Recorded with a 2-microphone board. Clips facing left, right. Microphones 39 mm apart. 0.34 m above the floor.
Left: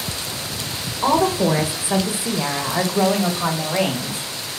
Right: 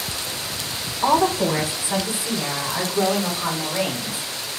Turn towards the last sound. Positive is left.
turn(degrees=55)  # may be behind; listen again after turning